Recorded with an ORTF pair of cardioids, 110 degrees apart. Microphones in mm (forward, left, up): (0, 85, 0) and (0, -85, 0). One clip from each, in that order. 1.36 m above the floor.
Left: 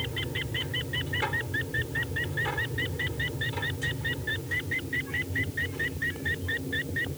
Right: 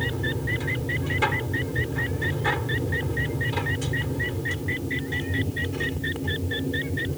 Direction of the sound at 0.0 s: 35° right.